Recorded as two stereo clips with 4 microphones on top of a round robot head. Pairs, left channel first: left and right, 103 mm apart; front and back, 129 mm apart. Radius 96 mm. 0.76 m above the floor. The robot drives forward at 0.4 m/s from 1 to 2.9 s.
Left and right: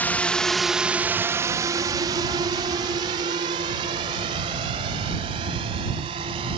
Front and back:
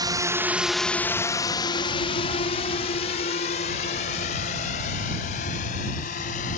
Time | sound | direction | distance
0.0 | a drone | 150° left | ?